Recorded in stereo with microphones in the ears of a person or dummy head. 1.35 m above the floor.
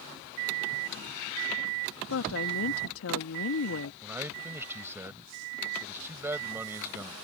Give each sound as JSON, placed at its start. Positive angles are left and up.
{"t": 2.1, "sound": "a woman speaking", "side_deg": 80}
{"t": 4.0, "sound": "a man speaking", "side_deg": -10}